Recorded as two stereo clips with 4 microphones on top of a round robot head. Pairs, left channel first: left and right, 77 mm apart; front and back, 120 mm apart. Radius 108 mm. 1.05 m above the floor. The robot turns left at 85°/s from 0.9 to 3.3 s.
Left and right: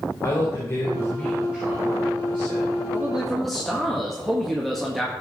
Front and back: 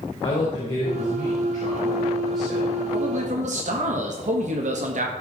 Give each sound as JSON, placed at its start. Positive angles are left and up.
{"t": 0.2, "sound": "a woman speaking", "azimuth_deg": 35, "distance_m": 4.5}
{"t": 2.9, "sound": "a man speaking", "azimuth_deg": -150, "distance_m": 1.8}